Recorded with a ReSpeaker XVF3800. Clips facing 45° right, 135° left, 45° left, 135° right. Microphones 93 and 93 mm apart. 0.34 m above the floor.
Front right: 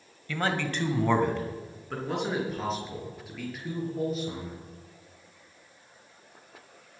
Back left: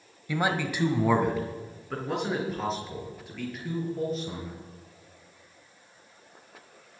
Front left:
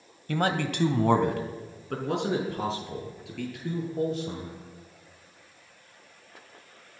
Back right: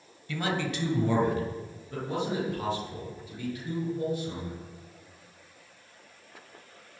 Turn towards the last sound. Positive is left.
turn(degrees=45)